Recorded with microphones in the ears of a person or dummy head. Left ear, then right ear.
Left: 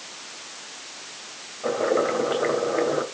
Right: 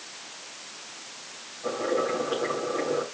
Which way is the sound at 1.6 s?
35° left (ahead or behind).